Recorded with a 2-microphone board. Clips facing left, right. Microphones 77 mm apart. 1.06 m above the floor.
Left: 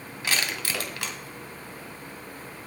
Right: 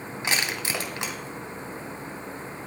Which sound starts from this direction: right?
Crushing, at 0.2 s.